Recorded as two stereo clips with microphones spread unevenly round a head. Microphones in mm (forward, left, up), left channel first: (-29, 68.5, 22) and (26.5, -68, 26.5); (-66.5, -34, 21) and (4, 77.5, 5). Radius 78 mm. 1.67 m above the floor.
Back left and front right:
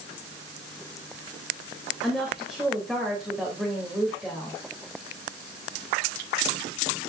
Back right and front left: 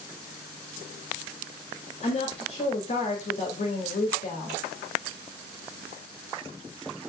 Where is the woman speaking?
155° right, 2.5 m.